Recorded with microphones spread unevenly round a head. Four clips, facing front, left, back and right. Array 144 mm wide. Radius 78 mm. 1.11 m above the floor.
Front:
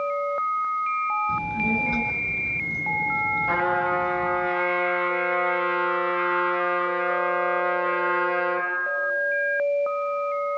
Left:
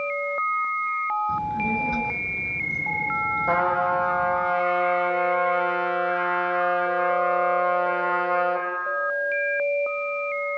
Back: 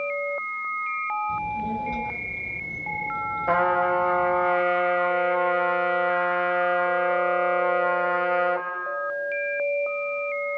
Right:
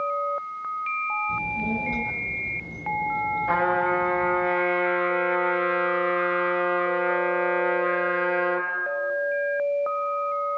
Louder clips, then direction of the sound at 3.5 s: Left 1 dB, back 4 dB; 155° left.